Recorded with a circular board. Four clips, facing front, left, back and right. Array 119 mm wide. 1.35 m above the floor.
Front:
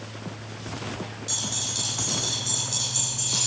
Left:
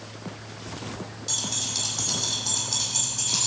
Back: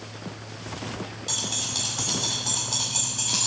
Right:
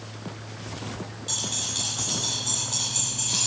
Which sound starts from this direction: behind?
Keys jangling, at 1.3 s.